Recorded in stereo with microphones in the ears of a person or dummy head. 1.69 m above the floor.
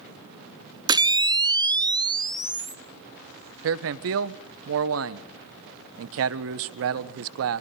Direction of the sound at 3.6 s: 70° right (ahead or behind).